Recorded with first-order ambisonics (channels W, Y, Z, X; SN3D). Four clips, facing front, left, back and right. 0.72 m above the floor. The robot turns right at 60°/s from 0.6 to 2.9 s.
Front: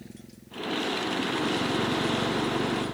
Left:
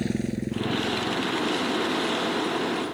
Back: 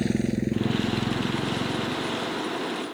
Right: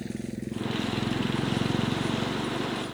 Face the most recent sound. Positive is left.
turn(degrees=-15)